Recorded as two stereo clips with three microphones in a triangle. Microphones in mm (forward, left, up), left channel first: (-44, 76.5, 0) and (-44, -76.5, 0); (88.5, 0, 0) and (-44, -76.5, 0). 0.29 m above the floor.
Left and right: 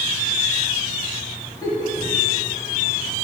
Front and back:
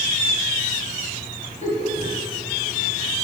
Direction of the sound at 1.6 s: 30° left.